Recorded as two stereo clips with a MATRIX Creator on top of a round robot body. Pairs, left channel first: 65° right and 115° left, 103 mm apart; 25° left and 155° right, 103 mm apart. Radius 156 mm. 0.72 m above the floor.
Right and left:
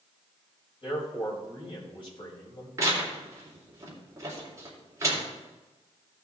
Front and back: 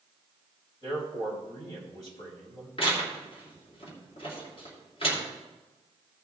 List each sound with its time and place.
0.8 s a man speaking: 25° right, 4.5 m
2.8 s tearing paper: 50° left, 3 m